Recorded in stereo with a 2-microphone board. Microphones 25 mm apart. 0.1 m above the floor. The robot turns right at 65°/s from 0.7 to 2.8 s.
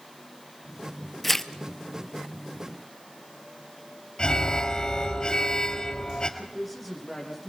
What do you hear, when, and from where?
1.2 s tearing paper: 5° left (ahead or behind), 0.6 m; by 1.5 s 20° left (ahead or behind), 0.6 m
4.2 s an alarm: 35° left (ahead or behind), 2.0 m
6.4 s a man speaking: centre (ahead or behind), 5.5 m